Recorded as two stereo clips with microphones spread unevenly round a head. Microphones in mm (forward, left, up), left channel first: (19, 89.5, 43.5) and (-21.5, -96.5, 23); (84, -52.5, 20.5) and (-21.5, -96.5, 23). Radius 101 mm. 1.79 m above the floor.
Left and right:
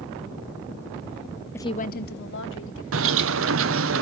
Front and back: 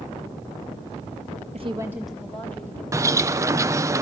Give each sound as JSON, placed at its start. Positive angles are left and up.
{"t": 1.5, "sound": "a woman speaking", "azimuth_deg": 155, "distance_m": 0.6}
{"t": 2.9, "sound": "a bird", "azimuth_deg": -100, "distance_m": 0.9}